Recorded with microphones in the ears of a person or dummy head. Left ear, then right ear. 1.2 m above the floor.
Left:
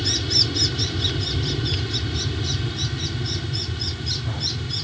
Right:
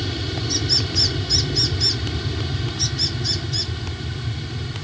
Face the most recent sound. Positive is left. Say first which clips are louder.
# left 7 dB
turn(degrees=-10)  # may be behind; listen again after turning